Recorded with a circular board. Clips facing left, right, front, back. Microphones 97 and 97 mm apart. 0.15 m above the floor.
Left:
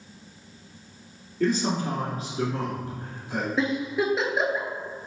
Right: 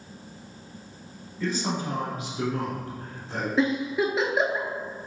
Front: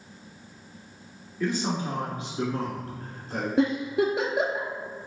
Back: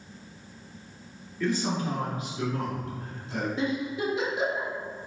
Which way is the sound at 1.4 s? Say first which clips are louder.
Left 4 dB, even; 70° left.